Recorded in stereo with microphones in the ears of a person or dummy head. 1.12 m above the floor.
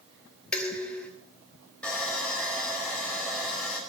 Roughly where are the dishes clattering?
Centre.